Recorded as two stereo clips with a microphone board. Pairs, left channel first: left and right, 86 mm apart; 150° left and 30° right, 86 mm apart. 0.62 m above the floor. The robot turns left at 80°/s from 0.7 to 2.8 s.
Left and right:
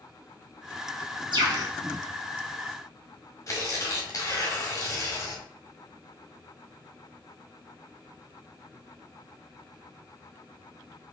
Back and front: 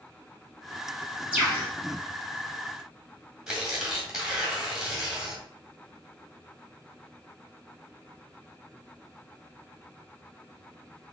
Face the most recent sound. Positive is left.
turn(degrees=55)